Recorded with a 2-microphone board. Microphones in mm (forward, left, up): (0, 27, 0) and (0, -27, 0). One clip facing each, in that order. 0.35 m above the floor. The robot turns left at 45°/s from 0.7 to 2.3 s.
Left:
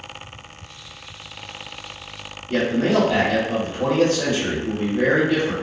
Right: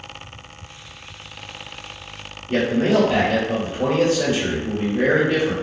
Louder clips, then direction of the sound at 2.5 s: Right 1 dB; 30° right (ahead or behind).